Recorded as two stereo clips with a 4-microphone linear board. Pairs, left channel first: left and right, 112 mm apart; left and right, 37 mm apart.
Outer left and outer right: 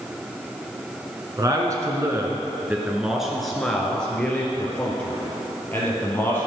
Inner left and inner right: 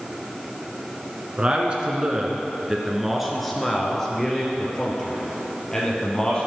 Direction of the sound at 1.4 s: 35° right (ahead or behind).